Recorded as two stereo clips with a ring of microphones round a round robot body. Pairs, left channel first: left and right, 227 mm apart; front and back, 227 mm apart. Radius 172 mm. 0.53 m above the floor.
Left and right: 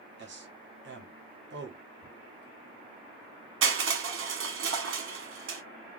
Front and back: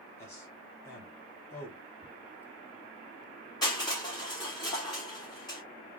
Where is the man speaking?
75° right, 1.0 m.